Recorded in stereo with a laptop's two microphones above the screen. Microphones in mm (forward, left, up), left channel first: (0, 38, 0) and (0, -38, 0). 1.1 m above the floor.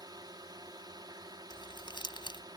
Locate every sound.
0.0 s a drone: 65° right (ahead or behind)
1.5 s crumpling: 85° left